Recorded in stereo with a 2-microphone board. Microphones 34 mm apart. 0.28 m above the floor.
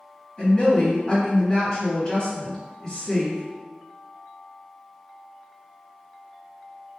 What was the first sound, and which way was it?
A woman speaking, 25° left (ahead or behind).